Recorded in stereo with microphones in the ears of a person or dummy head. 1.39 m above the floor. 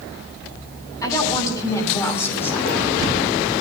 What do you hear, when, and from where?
1.0 s a woman speaking: 15° left (ahead or behind), 8 m; by 2.8 s 10° left (ahead or behind), 7 m